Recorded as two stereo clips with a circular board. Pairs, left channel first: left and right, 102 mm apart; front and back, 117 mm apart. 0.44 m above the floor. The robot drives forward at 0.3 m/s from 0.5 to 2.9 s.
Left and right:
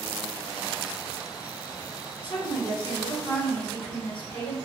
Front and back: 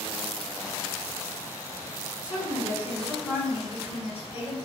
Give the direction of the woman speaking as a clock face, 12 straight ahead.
9 o'clock.